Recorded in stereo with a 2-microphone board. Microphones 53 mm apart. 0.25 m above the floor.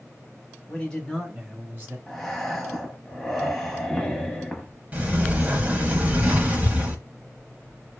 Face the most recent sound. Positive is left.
turn(degrees=-25)  # may be behind; listen again after turning